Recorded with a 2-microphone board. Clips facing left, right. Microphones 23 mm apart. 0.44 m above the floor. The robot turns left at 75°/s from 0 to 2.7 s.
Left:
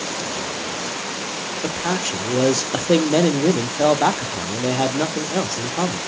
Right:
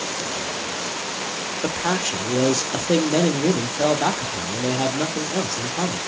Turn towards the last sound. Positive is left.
turn(degrees=120)